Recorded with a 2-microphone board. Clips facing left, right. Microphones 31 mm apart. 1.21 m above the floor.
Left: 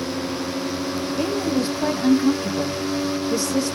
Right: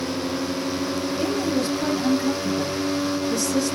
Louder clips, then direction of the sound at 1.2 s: Left 2 dB; 30° left (ahead or behind).